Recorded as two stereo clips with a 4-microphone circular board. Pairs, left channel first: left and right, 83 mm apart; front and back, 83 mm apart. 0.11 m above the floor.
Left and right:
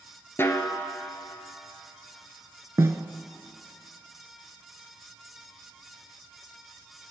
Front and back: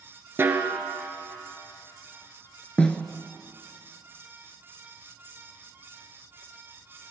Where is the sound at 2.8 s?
70° right, 0.5 m.